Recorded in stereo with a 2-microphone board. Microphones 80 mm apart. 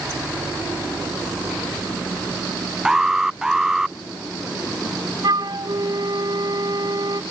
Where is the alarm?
5° right (ahead or behind).